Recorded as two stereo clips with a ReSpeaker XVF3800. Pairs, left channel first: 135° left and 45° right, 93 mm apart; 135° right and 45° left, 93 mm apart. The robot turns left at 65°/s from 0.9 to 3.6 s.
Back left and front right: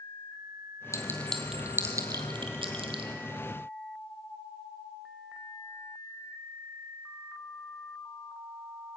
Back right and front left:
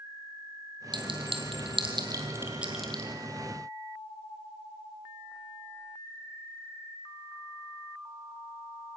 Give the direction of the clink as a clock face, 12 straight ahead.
9 o'clock.